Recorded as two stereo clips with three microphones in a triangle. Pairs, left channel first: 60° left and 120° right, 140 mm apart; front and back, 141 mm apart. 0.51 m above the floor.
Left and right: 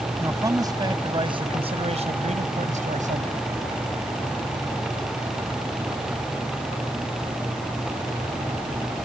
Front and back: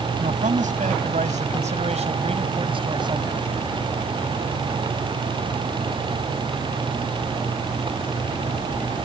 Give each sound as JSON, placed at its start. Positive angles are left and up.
{"t": 0.2, "sound": "a man speaking", "azimuth_deg": 170}